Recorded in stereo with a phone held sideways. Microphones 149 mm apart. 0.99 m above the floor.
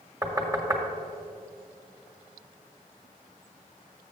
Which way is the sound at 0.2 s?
20° right (ahead or behind).